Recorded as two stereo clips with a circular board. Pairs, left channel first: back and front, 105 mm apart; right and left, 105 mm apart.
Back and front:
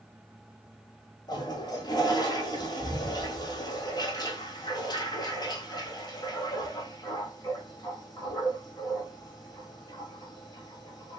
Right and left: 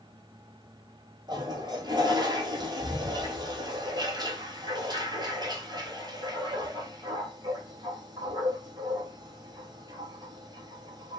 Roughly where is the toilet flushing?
Behind left.